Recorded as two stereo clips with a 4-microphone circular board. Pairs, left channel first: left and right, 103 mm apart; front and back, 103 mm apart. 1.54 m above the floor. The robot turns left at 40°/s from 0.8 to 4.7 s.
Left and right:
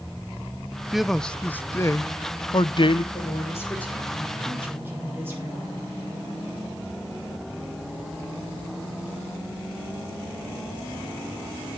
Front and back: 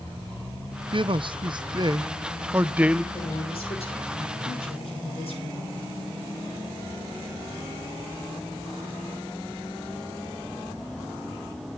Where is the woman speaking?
40° left, 6.5 m; by 5.8 s 20° right, 6.5 m.